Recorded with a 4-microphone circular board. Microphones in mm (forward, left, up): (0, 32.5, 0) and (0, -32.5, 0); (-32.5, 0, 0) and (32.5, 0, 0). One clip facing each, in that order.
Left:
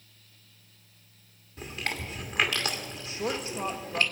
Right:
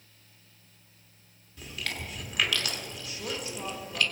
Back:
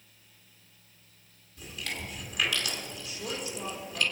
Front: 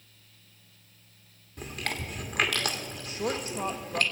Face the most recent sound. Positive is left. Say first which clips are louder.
# left 6 dB, front 7 dB
turn(degrees=35)